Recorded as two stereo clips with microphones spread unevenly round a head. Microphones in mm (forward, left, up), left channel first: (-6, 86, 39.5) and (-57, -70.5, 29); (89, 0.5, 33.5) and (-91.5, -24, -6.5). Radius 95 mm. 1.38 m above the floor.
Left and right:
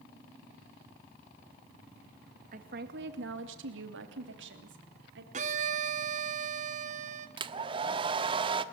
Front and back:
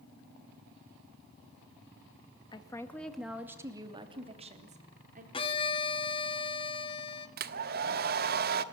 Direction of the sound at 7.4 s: 155° right.